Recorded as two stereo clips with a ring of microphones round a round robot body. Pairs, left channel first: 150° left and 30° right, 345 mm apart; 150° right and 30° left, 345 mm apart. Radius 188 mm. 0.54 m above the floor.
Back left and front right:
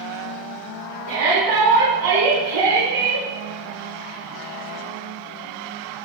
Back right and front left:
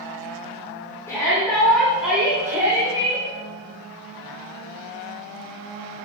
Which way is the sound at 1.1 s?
70° right.